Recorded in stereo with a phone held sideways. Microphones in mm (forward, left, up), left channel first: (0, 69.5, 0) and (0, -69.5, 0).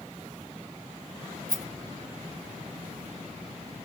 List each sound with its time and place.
1.5 s a rattle: 80° left, 3.5 m